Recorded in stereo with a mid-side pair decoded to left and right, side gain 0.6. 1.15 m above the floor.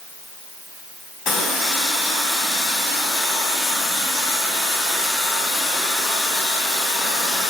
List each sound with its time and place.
1.2 s a running tap: 65° left, 1.8 m